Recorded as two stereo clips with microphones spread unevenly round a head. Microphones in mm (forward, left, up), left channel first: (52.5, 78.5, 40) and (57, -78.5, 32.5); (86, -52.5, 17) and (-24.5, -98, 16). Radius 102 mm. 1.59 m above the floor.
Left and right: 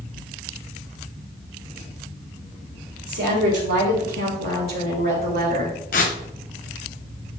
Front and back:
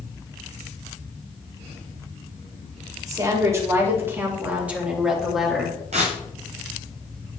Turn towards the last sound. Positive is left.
turn(degrees=140)